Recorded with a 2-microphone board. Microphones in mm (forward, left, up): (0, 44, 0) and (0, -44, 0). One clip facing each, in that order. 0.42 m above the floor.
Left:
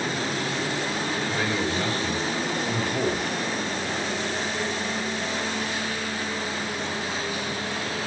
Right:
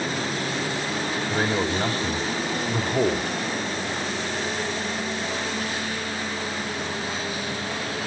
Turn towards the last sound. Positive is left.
turn(degrees=-35)  # may be behind; listen again after turning